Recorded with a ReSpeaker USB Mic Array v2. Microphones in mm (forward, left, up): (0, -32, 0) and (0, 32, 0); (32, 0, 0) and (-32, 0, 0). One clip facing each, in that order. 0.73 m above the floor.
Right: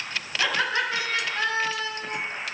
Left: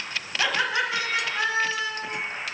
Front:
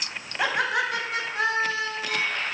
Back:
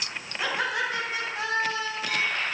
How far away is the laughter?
About 4 m.